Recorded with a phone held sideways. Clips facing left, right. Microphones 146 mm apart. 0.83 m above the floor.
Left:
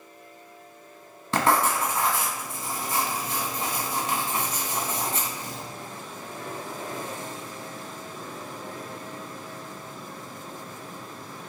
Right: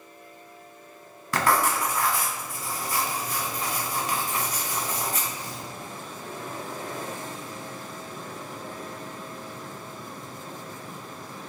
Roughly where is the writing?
Left.